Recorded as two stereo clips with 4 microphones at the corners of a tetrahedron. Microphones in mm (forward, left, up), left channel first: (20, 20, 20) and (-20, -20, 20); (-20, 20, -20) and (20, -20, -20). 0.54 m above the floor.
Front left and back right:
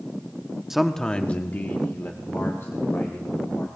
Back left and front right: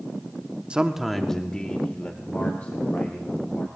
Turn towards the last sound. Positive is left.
turn(degrees=85)